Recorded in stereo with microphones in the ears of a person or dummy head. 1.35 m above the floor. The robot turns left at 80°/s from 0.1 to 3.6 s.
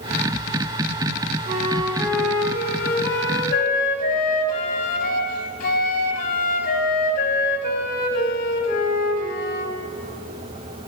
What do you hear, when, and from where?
1.5 s a flute: 130° right, 1.3 m; by 9.7 s 60° left, 1.3 m